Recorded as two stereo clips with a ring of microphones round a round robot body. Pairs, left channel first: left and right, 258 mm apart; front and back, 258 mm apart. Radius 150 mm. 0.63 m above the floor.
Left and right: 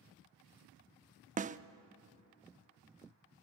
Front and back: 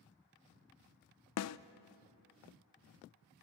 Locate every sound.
1.4 s a snare drum: 25° right, 0.6 m